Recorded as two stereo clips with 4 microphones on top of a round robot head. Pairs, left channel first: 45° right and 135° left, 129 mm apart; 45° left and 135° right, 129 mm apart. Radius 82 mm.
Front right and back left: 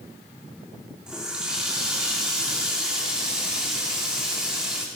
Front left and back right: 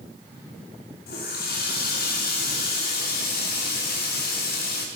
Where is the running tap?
50° left, 2.5 m.